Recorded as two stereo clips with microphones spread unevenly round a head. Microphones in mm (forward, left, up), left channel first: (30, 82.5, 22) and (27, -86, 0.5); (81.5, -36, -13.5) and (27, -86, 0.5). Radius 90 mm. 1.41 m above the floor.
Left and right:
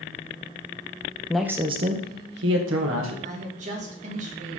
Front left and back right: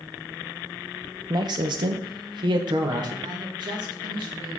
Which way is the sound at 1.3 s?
170° left.